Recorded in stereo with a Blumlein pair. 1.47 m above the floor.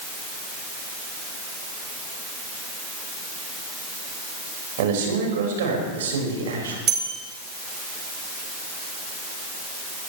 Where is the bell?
25° right, 3 m.